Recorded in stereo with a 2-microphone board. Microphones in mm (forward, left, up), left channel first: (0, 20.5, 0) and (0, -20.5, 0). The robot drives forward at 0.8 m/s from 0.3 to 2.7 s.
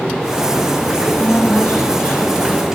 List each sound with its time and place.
1.0 s a woman speaking: 50° left (ahead or behind), 2.5 m; by 2.6 s 35° left (ahead or behind), 3 m